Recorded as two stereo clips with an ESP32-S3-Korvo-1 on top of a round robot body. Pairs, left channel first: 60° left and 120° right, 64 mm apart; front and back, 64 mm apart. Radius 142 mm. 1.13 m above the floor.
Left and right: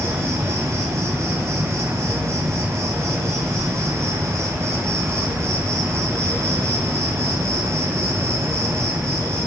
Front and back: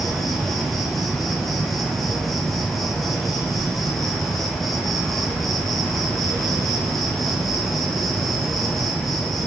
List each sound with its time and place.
0.0 s an insect: 90° right, 1.7 m